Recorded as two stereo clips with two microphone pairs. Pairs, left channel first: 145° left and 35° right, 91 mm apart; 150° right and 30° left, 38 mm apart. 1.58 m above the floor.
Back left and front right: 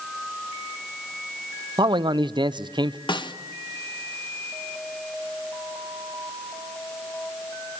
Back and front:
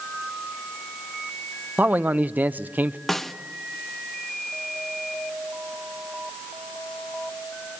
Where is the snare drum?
130° left, 1.1 m.